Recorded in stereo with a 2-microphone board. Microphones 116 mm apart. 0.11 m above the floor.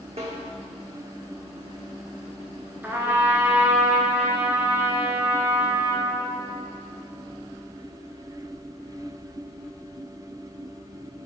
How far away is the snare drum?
About 1.0 m.